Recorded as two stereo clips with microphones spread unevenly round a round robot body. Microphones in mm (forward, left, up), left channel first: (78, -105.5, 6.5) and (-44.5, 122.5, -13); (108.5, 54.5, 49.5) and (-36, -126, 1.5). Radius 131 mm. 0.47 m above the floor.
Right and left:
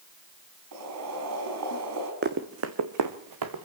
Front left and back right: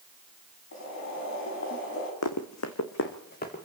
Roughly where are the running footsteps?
Ahead left.